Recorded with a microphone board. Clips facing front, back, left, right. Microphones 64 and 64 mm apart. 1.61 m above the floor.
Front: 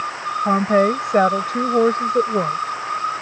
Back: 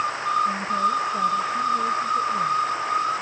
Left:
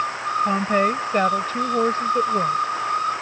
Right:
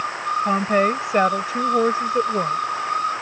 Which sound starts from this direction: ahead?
A woman speaking, at 0.5 s.